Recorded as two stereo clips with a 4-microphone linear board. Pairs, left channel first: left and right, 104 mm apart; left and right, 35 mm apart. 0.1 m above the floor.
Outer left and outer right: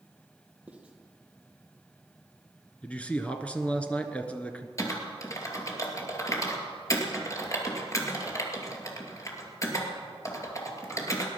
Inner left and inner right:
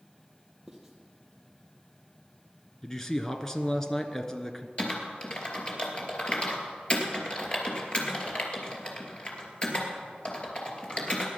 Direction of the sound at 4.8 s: 30° left (ahead or behind).